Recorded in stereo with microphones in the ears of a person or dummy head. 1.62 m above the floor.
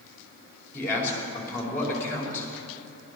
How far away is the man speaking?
About 5 m.